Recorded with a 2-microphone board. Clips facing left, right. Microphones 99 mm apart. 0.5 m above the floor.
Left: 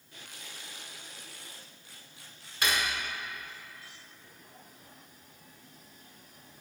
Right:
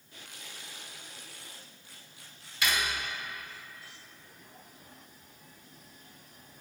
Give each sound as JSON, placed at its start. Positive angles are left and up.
{"t": 2.6, "sound": "cutlery clinking", "side_deg": 40, "distance_m": 1.1}